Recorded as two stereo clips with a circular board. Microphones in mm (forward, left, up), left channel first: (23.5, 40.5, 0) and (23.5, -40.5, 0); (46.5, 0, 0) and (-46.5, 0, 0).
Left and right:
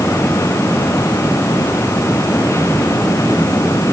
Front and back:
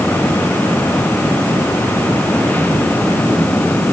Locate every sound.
Only background noise.